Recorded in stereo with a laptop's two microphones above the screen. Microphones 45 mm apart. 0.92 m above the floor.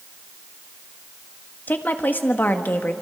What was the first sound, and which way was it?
A woman speaking, 45° left (ahead or behind).